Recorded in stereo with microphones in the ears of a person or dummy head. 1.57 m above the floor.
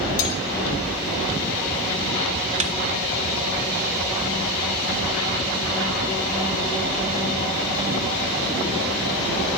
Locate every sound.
0.2 s cutlery clinking: 75° left (ahead or behind), 8.5 m
2.6 s a snare drum: 40° right (ahead or behind), 1.7 m